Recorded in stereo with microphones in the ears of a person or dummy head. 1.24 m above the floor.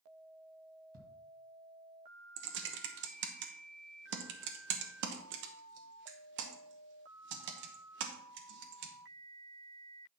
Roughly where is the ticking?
Right.